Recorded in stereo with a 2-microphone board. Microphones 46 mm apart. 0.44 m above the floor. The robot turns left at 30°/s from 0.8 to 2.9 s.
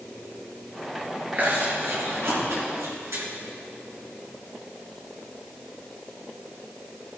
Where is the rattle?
I don't hear a rattle.